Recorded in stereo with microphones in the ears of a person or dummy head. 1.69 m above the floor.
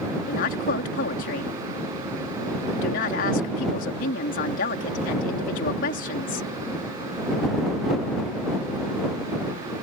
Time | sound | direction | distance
0.3 | a woman speaking | 55° left (ahead or behind) | ?